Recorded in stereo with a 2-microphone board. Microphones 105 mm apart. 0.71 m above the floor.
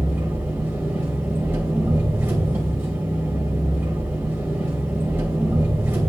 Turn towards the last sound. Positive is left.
turn(degrees=-20)  # may be behind; listen again after turning